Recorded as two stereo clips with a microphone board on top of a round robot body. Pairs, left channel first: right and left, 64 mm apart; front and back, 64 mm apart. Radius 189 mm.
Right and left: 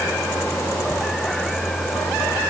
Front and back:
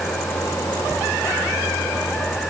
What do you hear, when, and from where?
Only background noise.